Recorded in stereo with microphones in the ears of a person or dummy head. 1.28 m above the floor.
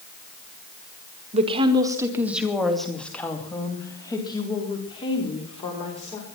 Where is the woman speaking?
35° right (ahead or behind), 1.8 m; by 6.2 s 30° left (ahead or behind), 5 m.